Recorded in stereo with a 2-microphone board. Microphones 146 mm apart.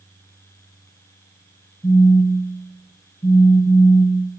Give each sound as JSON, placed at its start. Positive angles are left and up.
{"t": 1.8, "sound": "a phone buzzing", "side_deg": 20, "distance_m": 1.2}